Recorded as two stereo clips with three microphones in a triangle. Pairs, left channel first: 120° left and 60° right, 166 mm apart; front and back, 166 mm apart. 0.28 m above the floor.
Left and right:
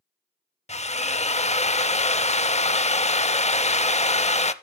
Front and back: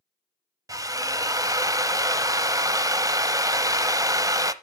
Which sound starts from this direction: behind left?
A drill, at 0.7 s.